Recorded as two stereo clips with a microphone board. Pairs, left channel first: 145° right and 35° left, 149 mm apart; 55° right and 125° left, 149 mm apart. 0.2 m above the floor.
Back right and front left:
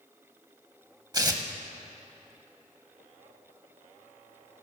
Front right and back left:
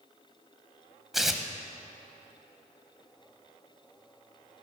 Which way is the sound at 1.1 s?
40° left.